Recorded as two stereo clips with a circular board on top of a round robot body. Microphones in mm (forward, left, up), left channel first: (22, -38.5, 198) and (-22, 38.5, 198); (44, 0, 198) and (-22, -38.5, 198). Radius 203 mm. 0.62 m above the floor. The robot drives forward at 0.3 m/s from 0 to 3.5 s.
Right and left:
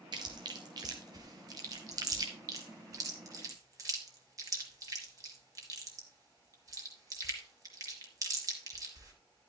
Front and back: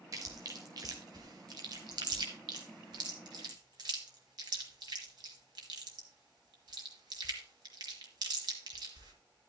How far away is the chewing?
About 0.5 m.